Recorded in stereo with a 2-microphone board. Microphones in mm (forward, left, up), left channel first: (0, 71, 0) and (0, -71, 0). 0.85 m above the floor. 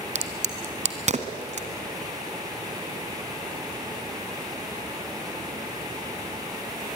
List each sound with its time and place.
0.1 s a crack: 55° right (ahead or behind), 1.6 m